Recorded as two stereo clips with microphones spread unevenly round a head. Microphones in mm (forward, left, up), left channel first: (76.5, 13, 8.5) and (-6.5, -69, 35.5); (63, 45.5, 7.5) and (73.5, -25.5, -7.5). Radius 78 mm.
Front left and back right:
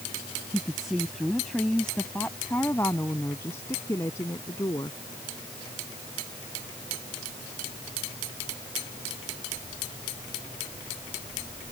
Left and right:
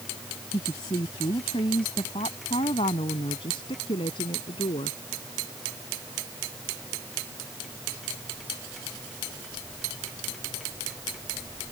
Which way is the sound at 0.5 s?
140° left.